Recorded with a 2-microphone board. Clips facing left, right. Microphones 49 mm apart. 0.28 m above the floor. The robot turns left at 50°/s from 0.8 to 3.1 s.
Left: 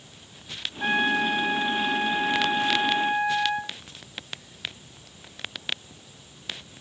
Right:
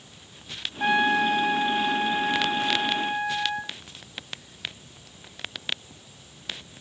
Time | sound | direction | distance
0.8 | a trumpet | 85° right | 1.2 m